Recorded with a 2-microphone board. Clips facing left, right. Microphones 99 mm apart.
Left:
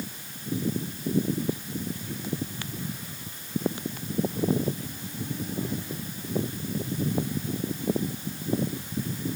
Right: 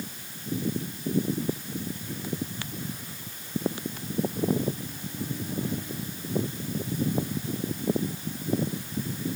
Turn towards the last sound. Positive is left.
No sound to turn to.